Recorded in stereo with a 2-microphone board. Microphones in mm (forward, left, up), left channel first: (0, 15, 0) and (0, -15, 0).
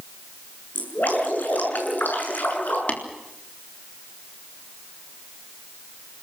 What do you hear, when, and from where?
0.8 s dripping: 85° left, 8 m
2.9 s tapping: 55° left (ahead or behind), 3.5 m